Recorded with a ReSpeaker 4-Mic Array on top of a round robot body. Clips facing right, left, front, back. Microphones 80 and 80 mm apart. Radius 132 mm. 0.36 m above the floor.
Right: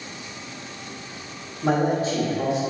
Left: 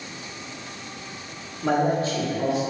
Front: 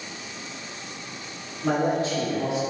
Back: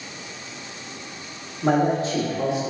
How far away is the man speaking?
About 1.0 m.